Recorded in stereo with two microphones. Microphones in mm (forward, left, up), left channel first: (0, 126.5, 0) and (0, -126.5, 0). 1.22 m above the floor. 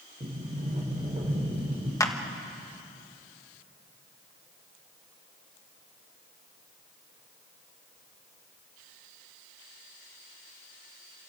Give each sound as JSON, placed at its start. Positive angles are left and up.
{"t": 0.2, "sound": "a sliding door", "side_deg": -30, "distance_m": 3.5}
{"t": 2.0, "sound": "a clap", "side_deg": 15, "distance_m": 1.3}